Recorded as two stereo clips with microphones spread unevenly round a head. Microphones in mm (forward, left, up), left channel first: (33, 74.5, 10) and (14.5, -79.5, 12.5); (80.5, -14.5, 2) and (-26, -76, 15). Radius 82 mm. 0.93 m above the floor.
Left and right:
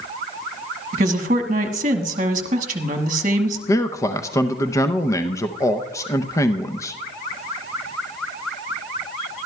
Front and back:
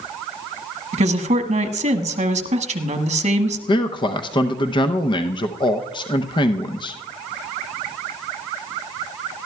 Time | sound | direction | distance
0.9 | a woman speaking | 135° right | 1.1 m
3.7 | a man speaking | 20° left | 0.6 m